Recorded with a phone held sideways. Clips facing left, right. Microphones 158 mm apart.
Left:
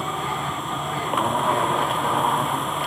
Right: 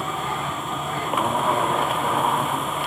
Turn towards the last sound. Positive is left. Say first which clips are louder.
# even
turn(degrees=0)  # may be behind; listen again after turning